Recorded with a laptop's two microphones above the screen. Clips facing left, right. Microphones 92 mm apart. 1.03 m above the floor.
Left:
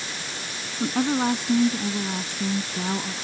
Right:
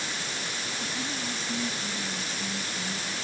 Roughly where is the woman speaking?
Left.